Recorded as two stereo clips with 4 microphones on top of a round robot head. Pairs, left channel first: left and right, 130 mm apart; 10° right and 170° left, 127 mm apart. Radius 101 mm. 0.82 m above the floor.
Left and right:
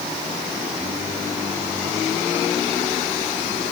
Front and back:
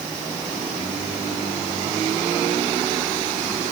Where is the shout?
No shout in this recording.